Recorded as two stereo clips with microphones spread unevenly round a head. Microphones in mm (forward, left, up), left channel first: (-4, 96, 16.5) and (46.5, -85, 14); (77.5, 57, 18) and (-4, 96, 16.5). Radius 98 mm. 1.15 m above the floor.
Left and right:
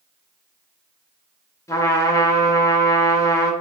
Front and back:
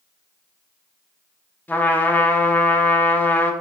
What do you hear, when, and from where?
1.7 s a trumpet: 35° left, 0.8 m